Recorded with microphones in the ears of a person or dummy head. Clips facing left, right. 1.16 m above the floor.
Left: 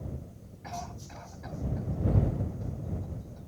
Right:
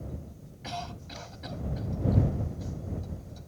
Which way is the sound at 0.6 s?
50° right (ahead or behind).